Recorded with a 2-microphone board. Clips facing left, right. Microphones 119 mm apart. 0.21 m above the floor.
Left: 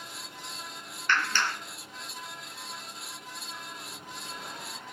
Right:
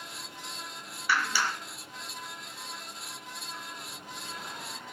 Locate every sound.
1.1 s a clap: 10° right (ahead or behind), 1.4 m